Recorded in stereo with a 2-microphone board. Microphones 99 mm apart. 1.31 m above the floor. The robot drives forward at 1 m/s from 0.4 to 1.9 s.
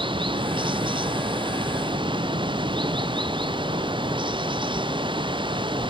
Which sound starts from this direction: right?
Running water, at 0.0 s.